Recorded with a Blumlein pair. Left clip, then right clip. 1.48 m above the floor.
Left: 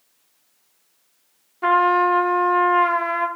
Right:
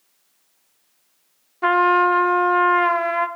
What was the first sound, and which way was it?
A trumpet, 10° right.